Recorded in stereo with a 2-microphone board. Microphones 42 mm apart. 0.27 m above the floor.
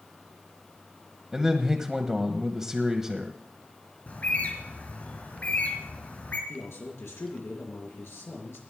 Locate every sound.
1.3 s a man speaking: 10° right (ahead or behind), 1.1 m
4.1 s a bird: 40° left (ahead or behind), 3 m
6.5 s a man speaking: 75° left (ahead or behind), 5 m